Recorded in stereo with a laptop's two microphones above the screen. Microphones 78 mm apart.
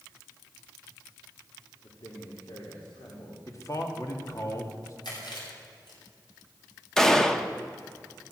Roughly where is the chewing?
Left.